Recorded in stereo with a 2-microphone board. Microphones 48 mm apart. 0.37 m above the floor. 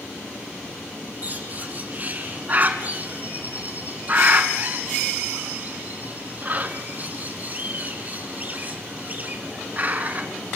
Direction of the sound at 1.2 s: 35° right (ahead or behind).